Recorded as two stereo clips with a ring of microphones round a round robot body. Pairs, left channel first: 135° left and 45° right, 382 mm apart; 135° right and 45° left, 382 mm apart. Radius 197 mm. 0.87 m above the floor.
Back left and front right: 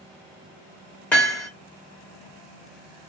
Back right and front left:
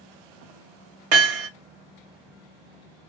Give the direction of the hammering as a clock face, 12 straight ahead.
10 o'clock.